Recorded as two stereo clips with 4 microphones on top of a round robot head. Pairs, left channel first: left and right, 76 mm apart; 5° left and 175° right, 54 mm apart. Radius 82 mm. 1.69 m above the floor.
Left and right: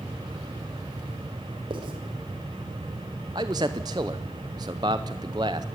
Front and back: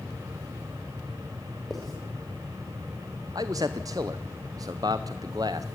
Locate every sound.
1.7 s writing: 80° right, 3 m
3.4 s a man speaking: 135° right, 0.6 m